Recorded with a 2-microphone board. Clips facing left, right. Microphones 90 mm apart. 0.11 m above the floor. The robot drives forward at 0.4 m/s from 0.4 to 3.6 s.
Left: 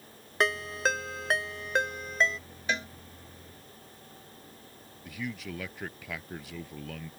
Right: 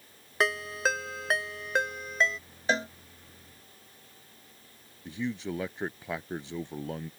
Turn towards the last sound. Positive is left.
turn(degrees=-30)  # may be behind; listen again after turning